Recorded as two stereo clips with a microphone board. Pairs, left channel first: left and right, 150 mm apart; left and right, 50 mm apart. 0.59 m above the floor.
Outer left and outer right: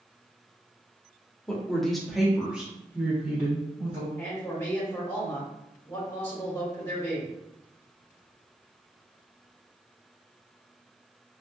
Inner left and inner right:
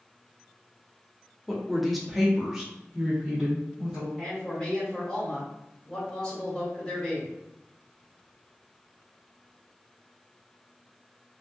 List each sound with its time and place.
1.5 s a woman speaking: 5° left (ahead or behind), 0.9 m; by 4.1 s 15° right (ahead or behind), 1.3 m
4.2 s a man speaking: 20° left (ahead or behind), 1.4 m